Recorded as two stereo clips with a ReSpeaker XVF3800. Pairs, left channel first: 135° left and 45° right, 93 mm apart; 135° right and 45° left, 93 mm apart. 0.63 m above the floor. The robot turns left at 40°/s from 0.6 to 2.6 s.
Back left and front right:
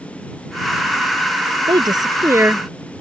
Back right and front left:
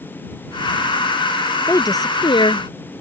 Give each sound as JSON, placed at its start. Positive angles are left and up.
{"t": 1.7, "sound": "a woman speaking", "azimuth_deg": -80}